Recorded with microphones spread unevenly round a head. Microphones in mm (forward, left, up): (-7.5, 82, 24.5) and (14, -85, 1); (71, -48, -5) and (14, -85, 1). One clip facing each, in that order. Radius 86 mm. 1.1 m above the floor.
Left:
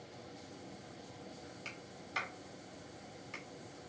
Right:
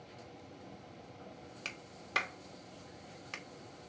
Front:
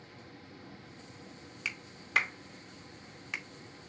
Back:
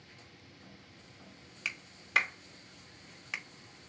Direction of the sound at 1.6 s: 60° right.